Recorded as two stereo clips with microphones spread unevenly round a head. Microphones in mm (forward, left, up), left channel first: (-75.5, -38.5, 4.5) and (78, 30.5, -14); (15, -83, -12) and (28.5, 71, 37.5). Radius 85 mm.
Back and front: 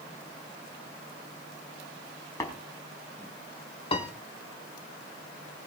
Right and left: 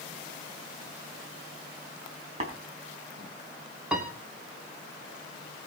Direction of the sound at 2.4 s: 135° left.